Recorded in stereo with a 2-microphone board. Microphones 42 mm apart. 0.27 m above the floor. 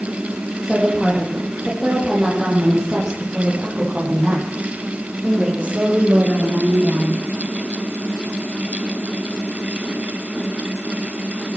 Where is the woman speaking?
Centre (ahead or behind), 9.5 m; by 7.2 s 40° right (ahead or behind), 11 m.